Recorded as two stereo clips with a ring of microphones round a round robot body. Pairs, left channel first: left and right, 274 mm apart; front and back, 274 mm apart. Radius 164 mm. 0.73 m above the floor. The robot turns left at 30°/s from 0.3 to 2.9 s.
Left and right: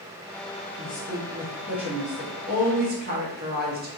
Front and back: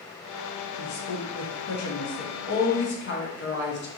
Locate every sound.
0.8 s a woman speaking: 20° left, 0.7 m; by 3.9 s 40° right, 0.7 m